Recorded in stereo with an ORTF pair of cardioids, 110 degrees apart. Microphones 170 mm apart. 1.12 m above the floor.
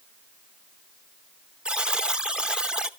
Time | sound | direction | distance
1.6 | a buzzer | 5° right | 0.7 m